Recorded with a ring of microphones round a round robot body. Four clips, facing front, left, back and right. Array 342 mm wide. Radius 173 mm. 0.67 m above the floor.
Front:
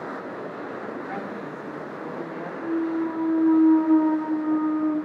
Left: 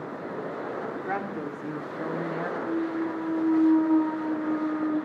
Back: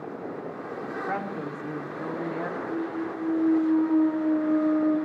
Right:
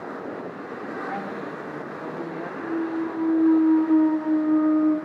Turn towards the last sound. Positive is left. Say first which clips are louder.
# right 4 dB, front 5 dB
turn(degrees=5)